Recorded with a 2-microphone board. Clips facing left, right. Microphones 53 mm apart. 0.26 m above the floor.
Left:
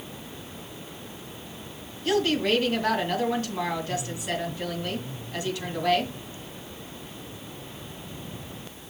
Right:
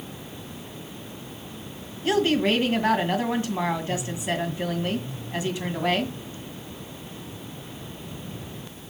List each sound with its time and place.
2.0 s a woman speaking: 20° right (ahead or behind), 2 m